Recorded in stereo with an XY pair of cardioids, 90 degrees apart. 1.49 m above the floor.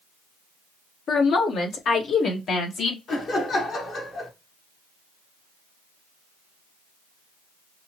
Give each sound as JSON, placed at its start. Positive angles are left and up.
{"t": 1.1, "sound": "a woman speaking", "azimuth_deg": 70, "distance_m": 1.3}
{"t": 3.1, "sound": "laughter", "azimuth_deg": 60, "distance_m": 2.0}